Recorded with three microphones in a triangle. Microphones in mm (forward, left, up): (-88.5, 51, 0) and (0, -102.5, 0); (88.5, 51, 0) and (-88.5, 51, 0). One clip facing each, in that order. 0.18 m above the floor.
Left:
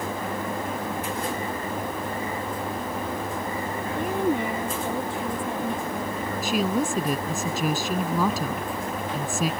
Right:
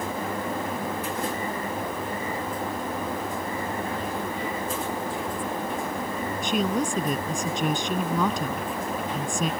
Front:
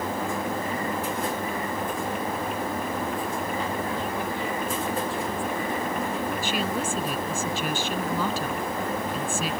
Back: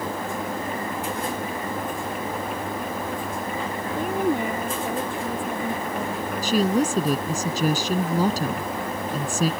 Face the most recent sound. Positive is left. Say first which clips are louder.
# left 1 dB, back 7 dB
turn(degrees=-155)